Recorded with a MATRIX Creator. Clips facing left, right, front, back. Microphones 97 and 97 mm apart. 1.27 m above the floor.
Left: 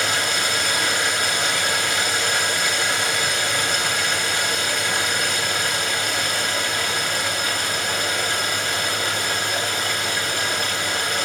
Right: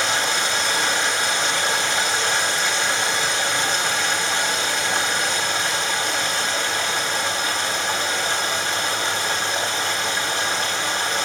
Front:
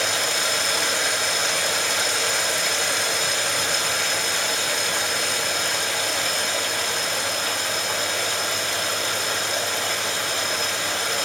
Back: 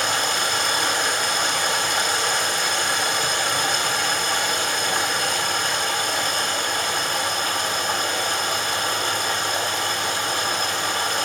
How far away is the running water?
About 4 m.